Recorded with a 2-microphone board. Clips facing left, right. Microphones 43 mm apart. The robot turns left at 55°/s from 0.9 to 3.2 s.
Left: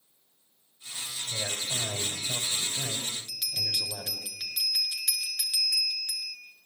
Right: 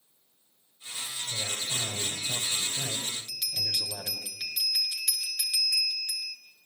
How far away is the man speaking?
About 5 m.